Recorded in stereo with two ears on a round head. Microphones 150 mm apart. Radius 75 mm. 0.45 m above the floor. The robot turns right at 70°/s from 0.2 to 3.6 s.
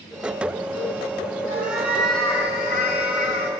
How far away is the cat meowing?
About 1.6 m.